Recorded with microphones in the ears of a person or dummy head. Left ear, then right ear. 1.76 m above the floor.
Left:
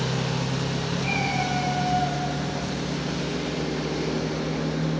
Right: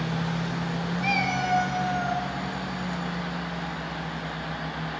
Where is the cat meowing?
50° right (ahead or behind), 4 m; by 2.2 s 55° right (ahead or behind), 2.5 m.